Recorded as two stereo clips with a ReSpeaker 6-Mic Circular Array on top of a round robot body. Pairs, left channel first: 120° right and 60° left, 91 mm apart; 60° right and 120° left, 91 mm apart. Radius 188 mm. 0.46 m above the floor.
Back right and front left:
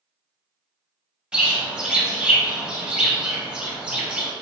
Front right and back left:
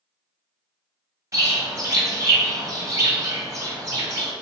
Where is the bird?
130° left, 1.6 m.